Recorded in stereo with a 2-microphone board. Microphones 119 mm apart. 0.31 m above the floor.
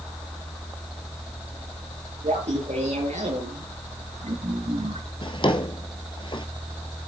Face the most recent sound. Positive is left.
turn(degrees=45)  # may be behind; listen again after turning